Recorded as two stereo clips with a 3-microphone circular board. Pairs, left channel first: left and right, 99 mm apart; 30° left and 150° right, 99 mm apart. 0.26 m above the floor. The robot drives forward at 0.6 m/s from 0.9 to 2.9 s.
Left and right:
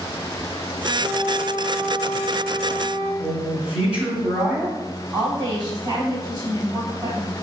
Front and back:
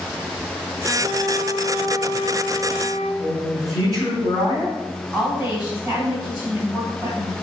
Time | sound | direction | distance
1.0 | a flute | 130° left | 1.5 m
3.2 | a man speaking | 160° right | 1.3 m
5.1 | a woman speaking | 125° right | 1.8 m